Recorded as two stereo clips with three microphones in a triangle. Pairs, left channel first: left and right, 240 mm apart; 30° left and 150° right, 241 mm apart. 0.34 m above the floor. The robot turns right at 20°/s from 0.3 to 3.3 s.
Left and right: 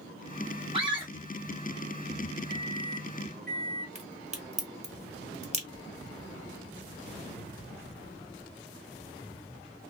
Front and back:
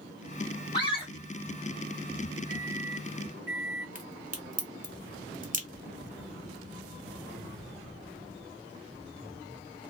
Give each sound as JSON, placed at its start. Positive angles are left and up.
{"t": 0.7, "sound": "a scream", "azimuth_deg": -35, "distance_m": 1.8}
{"t": 2.5, "sound": "a microwave", "azimuth_deg": 45, "distance_m": 1.9}
{"t": 4.0, "sound": "a crack", "azimuth_deg": -130, "distance_m": 0.9}